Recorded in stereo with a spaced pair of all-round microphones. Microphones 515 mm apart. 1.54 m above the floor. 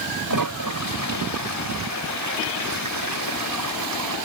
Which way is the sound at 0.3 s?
40° right (ahead or behind).